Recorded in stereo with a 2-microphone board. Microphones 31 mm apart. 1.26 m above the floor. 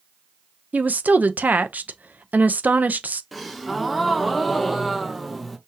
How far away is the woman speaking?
About 0.6 m.